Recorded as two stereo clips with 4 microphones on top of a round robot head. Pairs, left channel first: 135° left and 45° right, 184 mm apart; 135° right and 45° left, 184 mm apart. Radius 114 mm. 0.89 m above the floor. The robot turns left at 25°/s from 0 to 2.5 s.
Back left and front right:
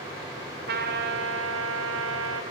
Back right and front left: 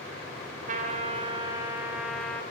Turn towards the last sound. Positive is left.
turn(degrees=-50)